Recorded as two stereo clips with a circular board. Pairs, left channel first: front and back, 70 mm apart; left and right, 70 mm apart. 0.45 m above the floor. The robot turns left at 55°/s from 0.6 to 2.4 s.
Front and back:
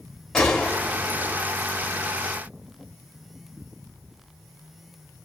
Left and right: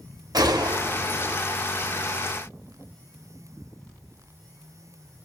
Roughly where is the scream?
I don't hear a scream.